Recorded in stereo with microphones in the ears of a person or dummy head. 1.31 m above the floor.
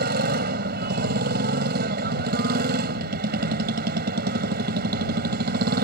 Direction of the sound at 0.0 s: 55° right (ahead or behind).